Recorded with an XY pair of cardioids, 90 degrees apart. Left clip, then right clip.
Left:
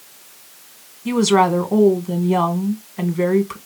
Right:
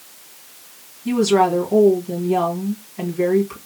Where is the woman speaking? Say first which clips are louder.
Left 1 dB; 65° left, 1.3 m.